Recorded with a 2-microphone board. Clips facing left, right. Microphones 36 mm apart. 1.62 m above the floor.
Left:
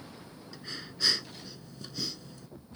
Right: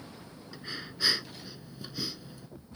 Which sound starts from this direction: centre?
Breathing, at 0.5 s.